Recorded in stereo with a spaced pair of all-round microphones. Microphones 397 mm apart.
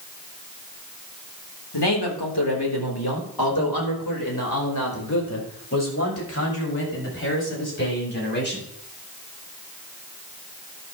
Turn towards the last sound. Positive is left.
turn(degrees=25)  # may be behind; listen again after turning